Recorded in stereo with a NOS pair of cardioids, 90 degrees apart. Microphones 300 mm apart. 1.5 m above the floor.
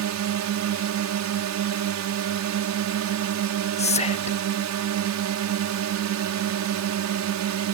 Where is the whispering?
20° left.